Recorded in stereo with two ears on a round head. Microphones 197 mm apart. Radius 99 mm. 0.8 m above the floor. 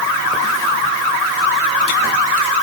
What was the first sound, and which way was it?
Only background noise.